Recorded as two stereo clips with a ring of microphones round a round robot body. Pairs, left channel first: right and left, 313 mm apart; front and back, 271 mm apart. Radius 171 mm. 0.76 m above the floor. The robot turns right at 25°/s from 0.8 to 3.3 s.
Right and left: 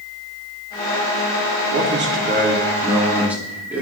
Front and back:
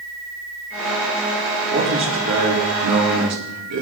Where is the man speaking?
135° left, 2.5 m; by 3.8 s 175° left, 2.5 m.